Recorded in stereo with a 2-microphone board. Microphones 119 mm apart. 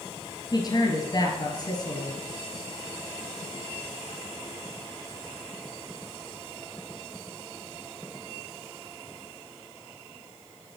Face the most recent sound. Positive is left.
turn(degrees=35)  # may be behind; listen again after turning